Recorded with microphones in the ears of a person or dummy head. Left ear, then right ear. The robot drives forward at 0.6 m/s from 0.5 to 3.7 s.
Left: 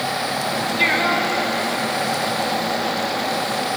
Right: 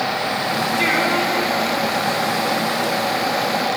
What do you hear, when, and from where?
0.8 s singing: 20° left (ahead or behind), 6 m